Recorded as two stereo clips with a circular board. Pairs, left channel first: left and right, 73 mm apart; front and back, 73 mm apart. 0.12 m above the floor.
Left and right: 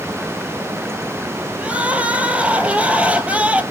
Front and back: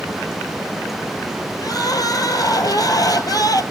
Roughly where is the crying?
Ahead.